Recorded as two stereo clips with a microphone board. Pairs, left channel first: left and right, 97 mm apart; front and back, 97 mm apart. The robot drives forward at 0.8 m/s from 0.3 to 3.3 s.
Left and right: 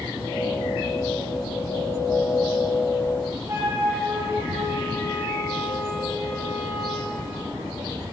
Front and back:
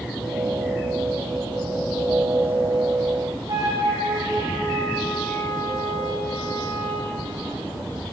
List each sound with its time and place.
3.5 s a flute: 140° right, 5.5 m